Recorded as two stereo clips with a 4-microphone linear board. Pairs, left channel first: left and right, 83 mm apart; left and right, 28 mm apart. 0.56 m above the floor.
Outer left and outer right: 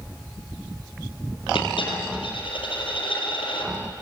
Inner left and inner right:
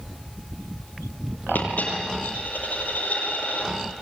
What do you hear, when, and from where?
1.6 s a dropped coin: 90° left, 6.5 m